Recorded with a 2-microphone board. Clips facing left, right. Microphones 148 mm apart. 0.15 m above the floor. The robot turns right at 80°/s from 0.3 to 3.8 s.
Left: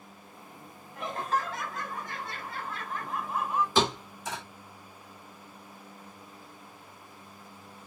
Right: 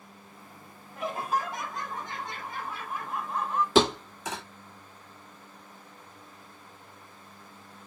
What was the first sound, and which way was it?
Laughter, centre (ahead or behind).